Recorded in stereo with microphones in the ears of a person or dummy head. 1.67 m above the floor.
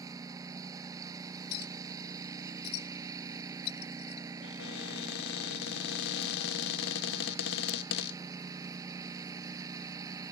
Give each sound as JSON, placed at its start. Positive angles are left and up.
{"t": 0.0, "sound": "a lawn mower", "side_deg": -15}
{"t": 1.5, "sound": "a clink", "side_deg": 60}
{"t": 4.4, "sound": "a cupboard door", "side_deg": 60}